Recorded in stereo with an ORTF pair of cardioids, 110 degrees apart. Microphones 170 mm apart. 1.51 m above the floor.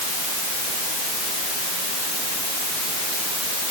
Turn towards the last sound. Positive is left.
No sound to turn to.